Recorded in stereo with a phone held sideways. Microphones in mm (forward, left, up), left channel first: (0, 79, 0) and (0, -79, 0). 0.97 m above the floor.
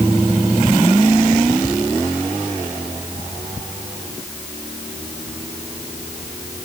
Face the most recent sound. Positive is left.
No sound to turn to.